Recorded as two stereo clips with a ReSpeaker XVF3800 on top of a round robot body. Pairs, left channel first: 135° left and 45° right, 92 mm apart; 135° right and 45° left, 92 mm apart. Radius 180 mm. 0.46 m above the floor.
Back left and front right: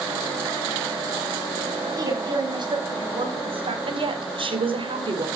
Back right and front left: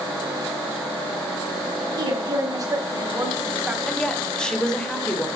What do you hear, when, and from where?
2.0 s a woman speaking: 5° left, 4 m; by 3.8 s 35° right, 3.5 m
3.9 s a woman speaking: 55° right, 3 m